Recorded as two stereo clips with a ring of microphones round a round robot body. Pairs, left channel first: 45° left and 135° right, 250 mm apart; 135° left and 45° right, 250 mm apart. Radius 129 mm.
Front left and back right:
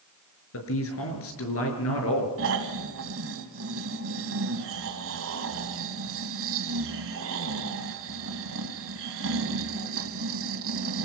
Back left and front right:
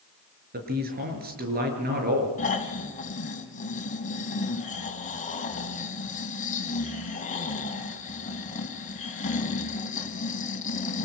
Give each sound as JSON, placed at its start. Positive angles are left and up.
{"t": 0.5, "sound": "a man speaking", "azimuth_deg": 10, "distance_m": 7.0}
{"t": 2.4, "sound": "snoring", "azimuth_deg": -165, "distance_m": 3.0}